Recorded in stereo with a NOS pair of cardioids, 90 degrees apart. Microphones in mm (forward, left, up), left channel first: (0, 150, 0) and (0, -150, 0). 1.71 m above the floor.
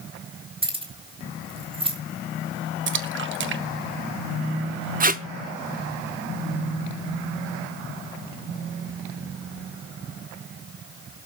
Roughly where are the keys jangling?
Ahead.